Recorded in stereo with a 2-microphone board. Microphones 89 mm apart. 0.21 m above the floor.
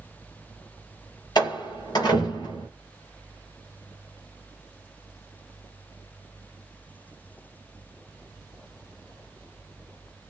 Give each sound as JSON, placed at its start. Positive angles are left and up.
{"t": 1.4, "sound": "a door slam", "side_deg": 50, "distance_m": 3.5}